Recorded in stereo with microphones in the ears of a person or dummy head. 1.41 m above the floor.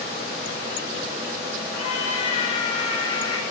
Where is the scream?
35° left (ahead or behind), 7 m; by 3.4 s 25° left (ahead or behind), 7.5 m.